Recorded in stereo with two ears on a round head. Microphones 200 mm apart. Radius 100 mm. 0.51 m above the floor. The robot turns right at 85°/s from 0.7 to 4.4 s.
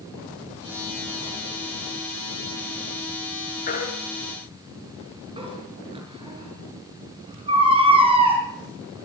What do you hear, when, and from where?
3.7 s a baby crying: 40° left (ahead or behind), 6 m; by 8.4 s 25° right (ahead or behind), 6 m